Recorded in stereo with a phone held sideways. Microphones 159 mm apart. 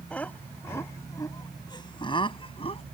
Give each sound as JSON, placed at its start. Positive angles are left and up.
{"t": 0.1, "sound": "laughter", "side_deg": 10}